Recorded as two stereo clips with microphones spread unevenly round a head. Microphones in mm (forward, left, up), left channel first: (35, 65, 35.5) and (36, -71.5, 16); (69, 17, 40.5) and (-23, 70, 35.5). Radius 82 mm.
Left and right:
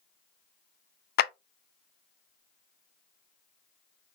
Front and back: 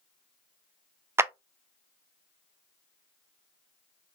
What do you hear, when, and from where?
1.2 s a clap: 85° left, 0.5 m